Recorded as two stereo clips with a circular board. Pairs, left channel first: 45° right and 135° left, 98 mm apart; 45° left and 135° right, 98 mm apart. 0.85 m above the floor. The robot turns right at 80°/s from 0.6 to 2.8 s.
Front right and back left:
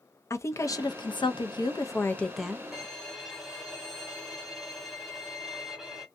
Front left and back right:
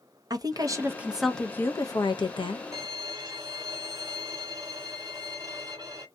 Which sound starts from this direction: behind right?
A violin, at 2.7 s.